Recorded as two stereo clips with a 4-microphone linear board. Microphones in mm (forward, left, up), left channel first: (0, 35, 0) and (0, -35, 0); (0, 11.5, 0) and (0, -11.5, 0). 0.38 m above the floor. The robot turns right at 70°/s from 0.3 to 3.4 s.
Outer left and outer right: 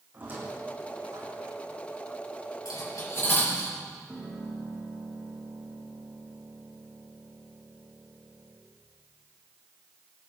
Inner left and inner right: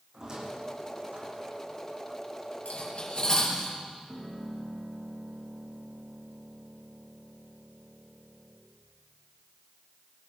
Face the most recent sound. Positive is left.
turn(degrees=-5)  # may be behind; listen again after turning